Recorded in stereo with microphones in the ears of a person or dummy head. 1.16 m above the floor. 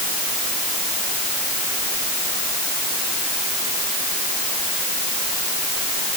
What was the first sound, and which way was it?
Only background noise.